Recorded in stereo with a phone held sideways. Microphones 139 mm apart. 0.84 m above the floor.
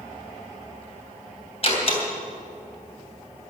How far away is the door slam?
About 3 m.